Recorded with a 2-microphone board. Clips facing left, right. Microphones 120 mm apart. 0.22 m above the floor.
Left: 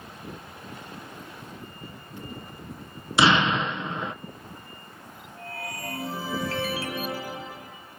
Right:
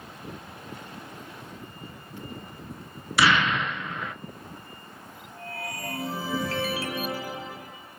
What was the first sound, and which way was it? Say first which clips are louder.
An explosion: left 2 dB; 25° left (ahead or behind).